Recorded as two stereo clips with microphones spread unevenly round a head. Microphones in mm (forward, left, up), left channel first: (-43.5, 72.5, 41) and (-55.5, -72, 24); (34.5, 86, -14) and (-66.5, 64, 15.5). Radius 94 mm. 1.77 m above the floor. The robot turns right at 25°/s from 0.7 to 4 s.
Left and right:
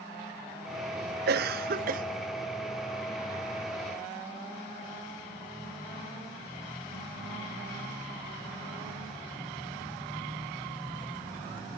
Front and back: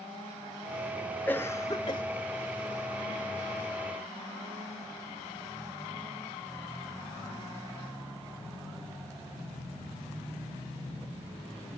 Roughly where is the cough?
Right.